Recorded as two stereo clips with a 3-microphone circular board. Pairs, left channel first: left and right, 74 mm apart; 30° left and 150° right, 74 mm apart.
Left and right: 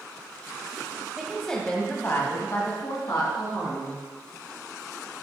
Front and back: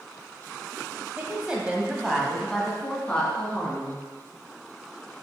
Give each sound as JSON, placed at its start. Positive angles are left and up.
{"t": 1.2, "sound": "a woman speaking", "azimuth_deg": -160, "distance_m": 1.0}